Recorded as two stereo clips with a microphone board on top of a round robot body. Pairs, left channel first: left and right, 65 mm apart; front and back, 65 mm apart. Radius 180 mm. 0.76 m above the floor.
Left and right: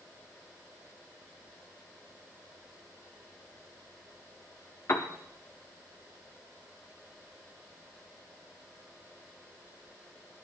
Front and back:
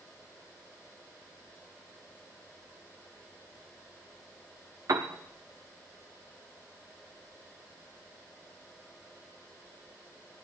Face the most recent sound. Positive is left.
turn(degrees=140)